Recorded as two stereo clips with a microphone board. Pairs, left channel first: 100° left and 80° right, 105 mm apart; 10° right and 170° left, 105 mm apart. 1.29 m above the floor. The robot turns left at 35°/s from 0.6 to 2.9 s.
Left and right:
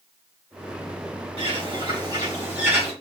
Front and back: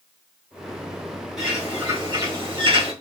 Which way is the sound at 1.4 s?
105° right.